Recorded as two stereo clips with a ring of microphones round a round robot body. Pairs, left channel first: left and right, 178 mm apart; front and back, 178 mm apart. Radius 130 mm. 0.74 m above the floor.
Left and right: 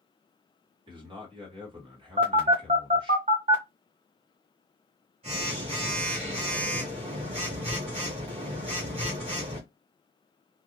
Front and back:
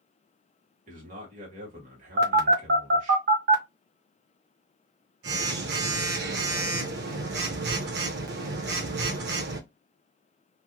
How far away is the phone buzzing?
About 0.5 m.